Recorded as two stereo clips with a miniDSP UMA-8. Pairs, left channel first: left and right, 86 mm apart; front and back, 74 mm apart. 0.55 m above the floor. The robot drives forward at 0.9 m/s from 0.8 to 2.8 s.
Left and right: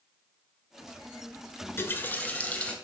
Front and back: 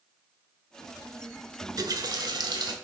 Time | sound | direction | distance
1.6 | a running tap | 145° left | 0.8 m